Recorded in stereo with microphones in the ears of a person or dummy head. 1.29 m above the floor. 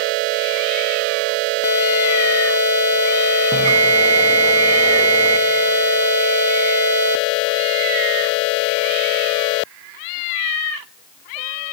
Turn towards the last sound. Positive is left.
turn(degrees=-30)  # may be behind; listen again after turning